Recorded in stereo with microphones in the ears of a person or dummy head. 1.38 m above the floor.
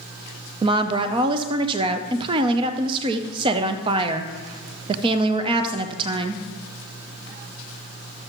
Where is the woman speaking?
30° right (ahead or behind), 0.6 m.